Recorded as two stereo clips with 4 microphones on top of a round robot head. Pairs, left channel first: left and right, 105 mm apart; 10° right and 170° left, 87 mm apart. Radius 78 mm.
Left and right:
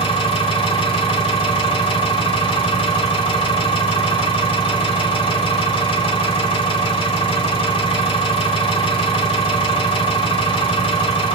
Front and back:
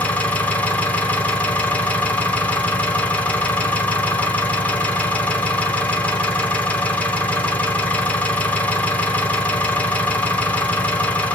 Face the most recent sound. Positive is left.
turn(degrees=65)